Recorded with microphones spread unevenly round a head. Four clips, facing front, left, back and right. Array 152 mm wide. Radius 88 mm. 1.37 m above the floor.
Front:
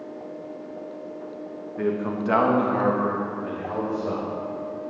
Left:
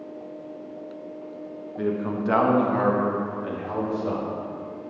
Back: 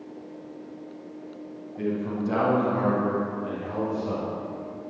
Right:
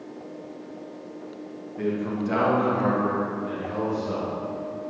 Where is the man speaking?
10° left, 2 m; by 4.3 s 55° left, 5 m.